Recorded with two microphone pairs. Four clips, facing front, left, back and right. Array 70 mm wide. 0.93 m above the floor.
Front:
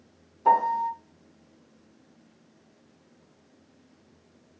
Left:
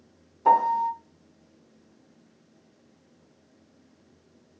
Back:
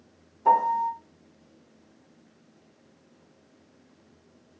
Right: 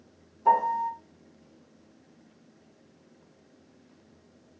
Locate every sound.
0.5 s a piano: 75° left, 0.6 m